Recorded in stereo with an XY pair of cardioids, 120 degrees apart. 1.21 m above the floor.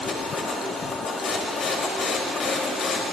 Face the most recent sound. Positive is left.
turn(degrees=45)